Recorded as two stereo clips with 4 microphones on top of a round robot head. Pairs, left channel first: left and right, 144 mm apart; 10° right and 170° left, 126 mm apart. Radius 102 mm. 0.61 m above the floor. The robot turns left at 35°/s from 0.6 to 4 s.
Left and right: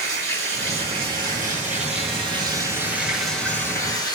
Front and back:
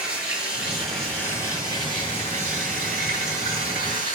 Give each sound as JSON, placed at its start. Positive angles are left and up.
{"t": 0.0, "sound": "running water", "azimuth_deg": -85, "distance_m": 5.5}